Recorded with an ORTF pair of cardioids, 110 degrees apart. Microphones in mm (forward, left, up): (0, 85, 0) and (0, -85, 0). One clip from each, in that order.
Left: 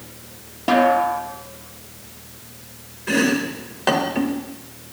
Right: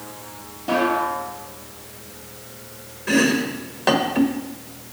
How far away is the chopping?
About 1.4 m.